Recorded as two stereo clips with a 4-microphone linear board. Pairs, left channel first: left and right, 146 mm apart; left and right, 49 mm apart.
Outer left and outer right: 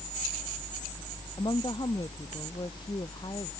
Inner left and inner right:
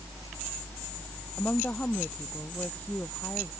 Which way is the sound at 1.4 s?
30° left (ahead or behind).